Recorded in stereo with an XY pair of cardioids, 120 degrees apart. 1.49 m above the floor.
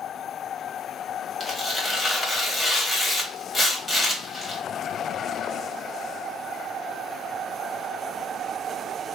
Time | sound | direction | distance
1.4 | tearing paper | 15° left | 1.4 m